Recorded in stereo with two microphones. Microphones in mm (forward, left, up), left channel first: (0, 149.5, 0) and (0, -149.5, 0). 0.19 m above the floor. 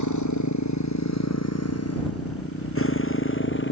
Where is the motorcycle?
75° left (ahead or behind); by 3.7 s 40° left (ahead or behind).